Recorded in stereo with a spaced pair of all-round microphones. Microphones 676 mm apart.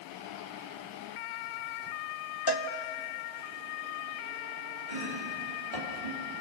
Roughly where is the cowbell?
Left.